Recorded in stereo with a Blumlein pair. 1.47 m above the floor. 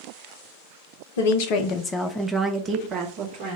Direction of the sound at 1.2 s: 60° left.